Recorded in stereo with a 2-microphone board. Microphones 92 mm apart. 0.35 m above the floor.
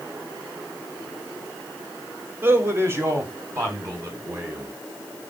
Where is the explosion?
I don't hear an explosion.